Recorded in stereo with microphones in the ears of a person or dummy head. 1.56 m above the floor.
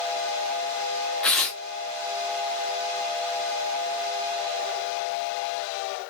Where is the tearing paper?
10° left (ahead or behind), 0.6 m.